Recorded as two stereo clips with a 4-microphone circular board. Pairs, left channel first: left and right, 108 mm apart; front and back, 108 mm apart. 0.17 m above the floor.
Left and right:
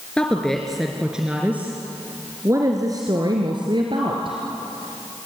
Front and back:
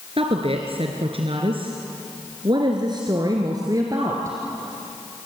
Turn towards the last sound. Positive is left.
turn(degrees=-120)